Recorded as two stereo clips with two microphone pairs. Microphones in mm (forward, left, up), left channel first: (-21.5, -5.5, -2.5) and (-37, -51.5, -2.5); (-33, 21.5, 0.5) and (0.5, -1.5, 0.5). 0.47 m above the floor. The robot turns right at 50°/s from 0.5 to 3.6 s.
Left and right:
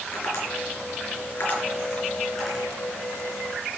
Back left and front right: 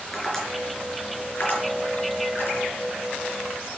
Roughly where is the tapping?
Ahead left.